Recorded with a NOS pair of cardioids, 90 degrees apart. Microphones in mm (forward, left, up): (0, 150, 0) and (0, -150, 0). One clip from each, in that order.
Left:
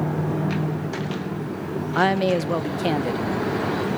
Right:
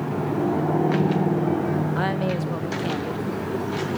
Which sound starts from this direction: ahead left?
A woman speaking, at 1.9 s.